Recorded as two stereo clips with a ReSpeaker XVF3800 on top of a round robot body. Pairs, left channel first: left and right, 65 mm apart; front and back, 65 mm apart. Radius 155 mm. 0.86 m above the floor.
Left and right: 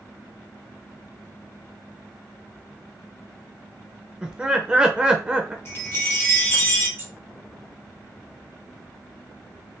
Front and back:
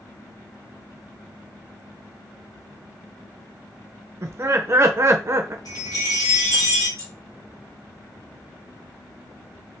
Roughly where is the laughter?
Behind.